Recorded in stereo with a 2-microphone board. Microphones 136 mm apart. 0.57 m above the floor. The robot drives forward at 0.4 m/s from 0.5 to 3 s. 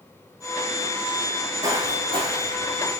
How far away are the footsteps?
About 0.6 m.